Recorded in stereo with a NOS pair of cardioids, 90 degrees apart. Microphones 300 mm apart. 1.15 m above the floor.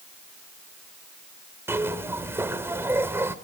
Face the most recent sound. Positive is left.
turn(degrees=-10)